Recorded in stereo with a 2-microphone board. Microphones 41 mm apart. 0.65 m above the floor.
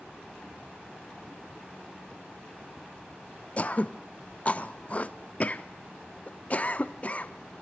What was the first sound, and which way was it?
Throat clearing, 35° left (ahead or behind).